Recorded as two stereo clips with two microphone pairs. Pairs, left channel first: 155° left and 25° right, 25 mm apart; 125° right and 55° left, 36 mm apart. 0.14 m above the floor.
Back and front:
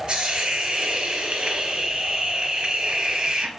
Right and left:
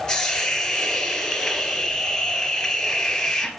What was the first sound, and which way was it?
A hiss, 55° right.